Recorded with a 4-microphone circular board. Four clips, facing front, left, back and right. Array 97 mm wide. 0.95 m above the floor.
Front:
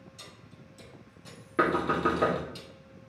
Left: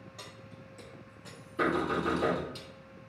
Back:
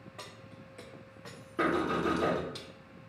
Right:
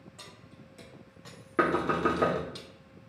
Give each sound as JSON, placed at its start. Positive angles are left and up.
{"t": 0.2, "sound": "keys jangling", "azimuth_deg": 170, "distance_m": 1.4}
{"t": 1.6, "sound": "knocking", "azimuth_deg": -65, "distance_m": 1.7}